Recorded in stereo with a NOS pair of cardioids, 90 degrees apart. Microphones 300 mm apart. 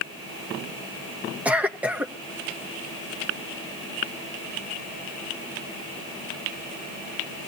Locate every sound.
1.4 s a cough: 5° right, 1.3 m